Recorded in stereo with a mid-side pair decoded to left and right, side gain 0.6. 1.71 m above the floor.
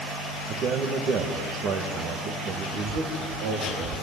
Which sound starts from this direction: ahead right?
A man speaking, at 0.5 s.